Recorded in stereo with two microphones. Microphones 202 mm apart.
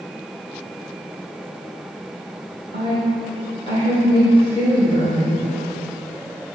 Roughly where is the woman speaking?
Left.